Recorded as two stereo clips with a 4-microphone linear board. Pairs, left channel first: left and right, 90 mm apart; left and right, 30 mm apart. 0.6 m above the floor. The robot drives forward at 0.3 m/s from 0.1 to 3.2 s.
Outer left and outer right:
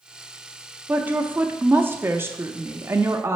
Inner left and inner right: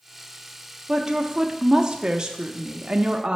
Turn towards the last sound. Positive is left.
turn(degrees=-30)  # may be behind; listen again after turning